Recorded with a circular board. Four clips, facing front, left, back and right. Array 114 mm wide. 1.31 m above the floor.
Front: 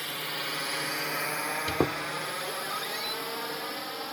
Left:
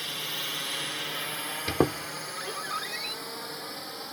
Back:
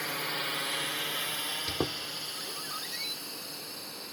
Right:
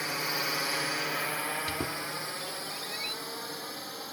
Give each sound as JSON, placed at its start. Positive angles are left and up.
{"t": 0.0, "sound": "a drone", "azimuth_deg": -110}
{"t": 1.7, "sound": "a squeak", "azimuth_deg": 70}